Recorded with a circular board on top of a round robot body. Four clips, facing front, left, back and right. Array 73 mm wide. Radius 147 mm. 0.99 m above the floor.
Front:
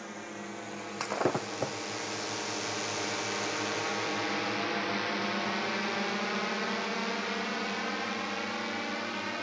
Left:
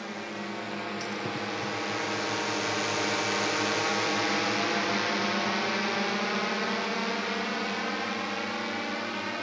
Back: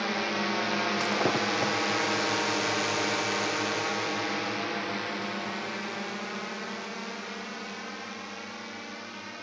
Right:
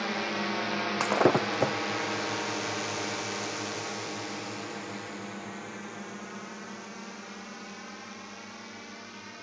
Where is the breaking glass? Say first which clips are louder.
Right 9 dB, front 1 dB; 95° right.